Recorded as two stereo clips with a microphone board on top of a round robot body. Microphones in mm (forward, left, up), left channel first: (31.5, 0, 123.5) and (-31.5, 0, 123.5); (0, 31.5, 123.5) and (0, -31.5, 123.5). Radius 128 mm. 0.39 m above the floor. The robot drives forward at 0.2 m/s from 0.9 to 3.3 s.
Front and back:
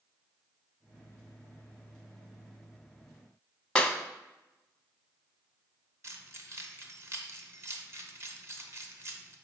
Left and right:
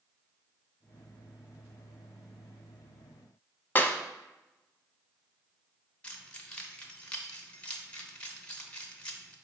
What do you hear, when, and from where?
3.8 s a clap: 65° left, 0.7 m
6.0 s keys jangling: 155° left, 0.9 m